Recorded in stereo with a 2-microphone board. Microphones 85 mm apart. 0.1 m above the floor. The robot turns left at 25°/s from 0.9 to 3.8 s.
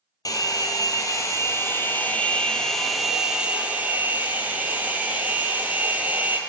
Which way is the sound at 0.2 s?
50° left.